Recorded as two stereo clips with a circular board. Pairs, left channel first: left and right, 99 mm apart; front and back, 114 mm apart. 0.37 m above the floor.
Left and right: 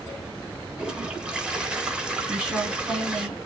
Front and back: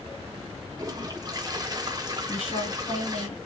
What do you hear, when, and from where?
0.8 s a toilet flushing: 165° right, 0.9 m
2.3 s a woman speaking: 10° right, 2.5 m